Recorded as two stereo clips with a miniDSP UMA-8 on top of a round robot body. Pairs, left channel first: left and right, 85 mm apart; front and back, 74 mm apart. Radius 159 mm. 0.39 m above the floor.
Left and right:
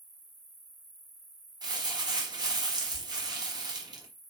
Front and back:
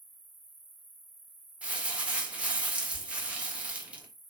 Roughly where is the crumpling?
Right.